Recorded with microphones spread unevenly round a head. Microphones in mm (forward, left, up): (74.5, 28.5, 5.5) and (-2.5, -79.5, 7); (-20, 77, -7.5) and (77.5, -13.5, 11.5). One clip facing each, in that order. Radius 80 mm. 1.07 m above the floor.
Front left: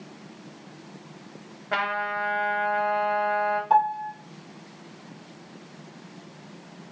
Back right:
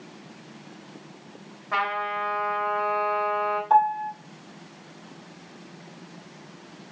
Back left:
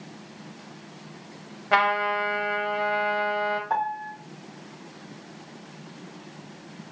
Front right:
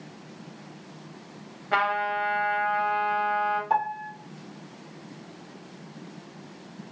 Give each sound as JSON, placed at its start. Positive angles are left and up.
{"t": 1.7, "sound": "a trumpet", "azimuth_deg": 105, "distance_m": 0.9}
{"t": 3.7, "sound": "a piano", "azimuth_deg": -30, "distance_m": 0.7}